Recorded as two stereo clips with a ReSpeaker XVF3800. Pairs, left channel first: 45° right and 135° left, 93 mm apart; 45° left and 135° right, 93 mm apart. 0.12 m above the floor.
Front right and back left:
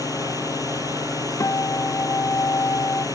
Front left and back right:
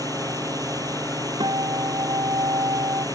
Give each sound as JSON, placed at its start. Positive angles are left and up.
{"t": 0.0, "sound": "a drone", "azimuth_deg": -90}
{"t": 1.4, "sound": "a guitar", "azimuth_deg": -100}